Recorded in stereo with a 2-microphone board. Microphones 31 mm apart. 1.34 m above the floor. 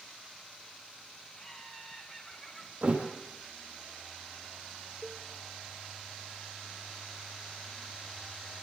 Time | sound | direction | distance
1.4 | laughter | 30° left (ahead or behind) | 2.5 m
2.8 | a thud | 45° right (ahead or behind) | 4.5 m
5.0 | a cowbell | 35° right (ahead or behind) | 2.0 m